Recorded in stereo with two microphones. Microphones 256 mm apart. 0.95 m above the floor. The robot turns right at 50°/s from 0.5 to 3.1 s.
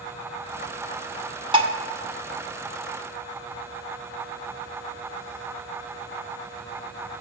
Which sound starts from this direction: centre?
Dishes clattering, at 1.5 s.